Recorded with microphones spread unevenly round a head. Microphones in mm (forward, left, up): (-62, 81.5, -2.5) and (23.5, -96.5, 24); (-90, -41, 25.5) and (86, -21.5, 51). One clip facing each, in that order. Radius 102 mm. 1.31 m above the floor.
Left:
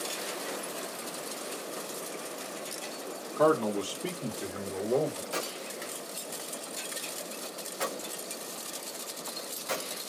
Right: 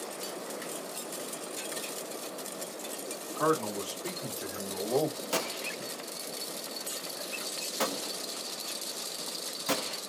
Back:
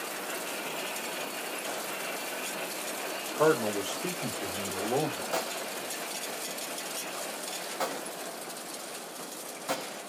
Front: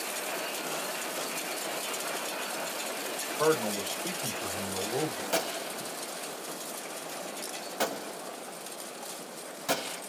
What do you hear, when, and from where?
3.4 s a man speaking: 125° left, 1.2 m; by 5.2 s 175° right, 1.2 m
5.3 s a gunshot: 45° right, 0.7 m